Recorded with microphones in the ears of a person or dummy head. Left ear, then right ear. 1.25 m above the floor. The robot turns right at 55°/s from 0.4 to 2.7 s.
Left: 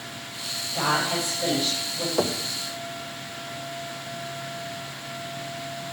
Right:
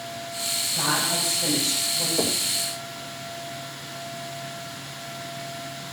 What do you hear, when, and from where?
0.7 s a woman speaking: 60° left, 6.5 m; by 2.1 s 130° left, 6.5 m
2.2 s knocking: 60° left (ahead or behind), 1.6 m; by 2.4 s 70° left (ahead or behind), 1.6 m